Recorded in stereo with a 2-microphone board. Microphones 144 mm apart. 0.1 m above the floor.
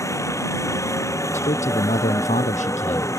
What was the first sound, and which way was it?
A helicopter, 20° left (ahead or behind).